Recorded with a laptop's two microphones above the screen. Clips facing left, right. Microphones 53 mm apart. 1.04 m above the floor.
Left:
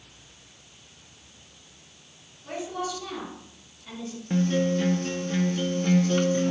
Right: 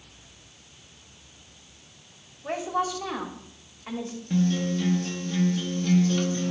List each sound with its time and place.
2.4 s a woman speaking: 55° right (ahead or behind), 2 m
4.3 s a guitar: 30° left (ahead or behind), 0.7 m